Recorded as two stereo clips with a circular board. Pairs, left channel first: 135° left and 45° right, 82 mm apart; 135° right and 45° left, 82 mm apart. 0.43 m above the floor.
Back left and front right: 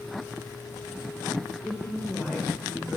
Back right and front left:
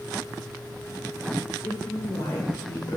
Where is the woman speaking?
150° right, 1.7 m.